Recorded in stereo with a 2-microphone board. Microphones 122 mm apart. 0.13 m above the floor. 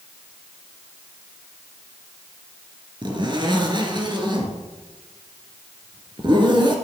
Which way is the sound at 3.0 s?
40° right (ahead or behind).